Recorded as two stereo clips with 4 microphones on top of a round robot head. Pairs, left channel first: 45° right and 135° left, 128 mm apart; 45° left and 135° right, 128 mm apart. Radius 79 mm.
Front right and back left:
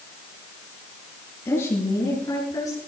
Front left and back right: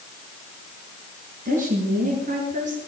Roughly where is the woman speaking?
Behind right.